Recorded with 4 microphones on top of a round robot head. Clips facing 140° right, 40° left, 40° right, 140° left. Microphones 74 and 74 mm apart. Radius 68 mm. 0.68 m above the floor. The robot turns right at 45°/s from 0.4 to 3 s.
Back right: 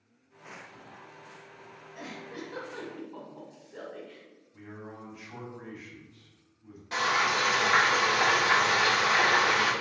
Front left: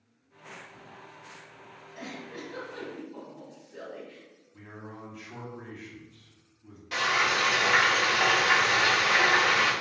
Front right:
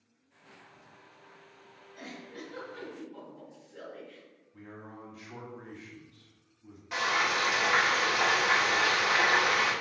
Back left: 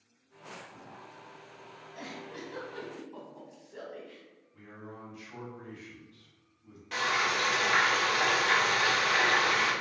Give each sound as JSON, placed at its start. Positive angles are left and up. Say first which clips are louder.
{"t": 1.9, "sound": "a giggle", "louder": "front left 1 dB, back left 1 dB", "azimuth_deg": 130, "distance_m": 1.0}
{"t": 4.5, "sound": "a man speaking", "louder": "even, even", "azimuth_deg": -60, "distance_m": 1.3}
{"t": 6.9, "sound": "frying", "louder": "even, front right 1 dB", "azimuth_deg": -110, "distance_m": 1.4}